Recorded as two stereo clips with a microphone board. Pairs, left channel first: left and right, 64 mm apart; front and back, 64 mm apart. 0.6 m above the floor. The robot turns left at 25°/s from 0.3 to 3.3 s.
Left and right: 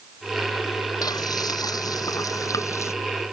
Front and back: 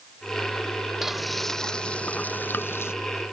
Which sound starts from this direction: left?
Frying, at 1.0 s.